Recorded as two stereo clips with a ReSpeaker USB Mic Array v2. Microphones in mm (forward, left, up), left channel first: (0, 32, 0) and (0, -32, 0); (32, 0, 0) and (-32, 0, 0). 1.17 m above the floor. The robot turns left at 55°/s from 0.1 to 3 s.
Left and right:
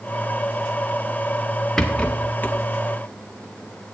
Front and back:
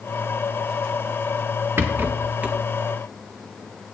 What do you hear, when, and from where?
1.8 s a rattle: 165° left, 0.7 m; by 2.6 s 120° left, 0.7 m